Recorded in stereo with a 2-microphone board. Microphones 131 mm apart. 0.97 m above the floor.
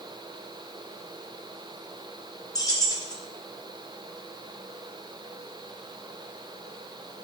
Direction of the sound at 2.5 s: 25° left (ahead or behind).